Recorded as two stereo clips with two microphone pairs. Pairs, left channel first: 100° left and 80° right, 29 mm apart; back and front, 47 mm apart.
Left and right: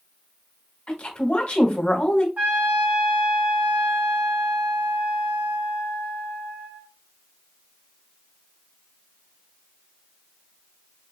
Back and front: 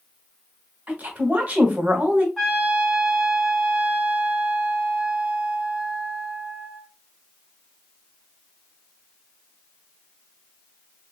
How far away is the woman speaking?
About 1.0 m.